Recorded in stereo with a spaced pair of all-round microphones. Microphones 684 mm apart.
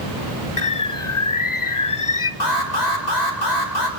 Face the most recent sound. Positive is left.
turn(degrees=75)  # may be behind; listen again after turning